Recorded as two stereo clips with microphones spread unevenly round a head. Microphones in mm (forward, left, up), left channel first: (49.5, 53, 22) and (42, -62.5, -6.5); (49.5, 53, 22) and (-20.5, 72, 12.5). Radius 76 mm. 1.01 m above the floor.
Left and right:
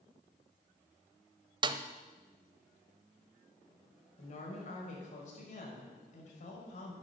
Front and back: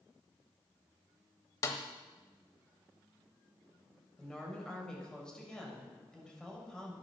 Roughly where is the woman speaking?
Ahead left.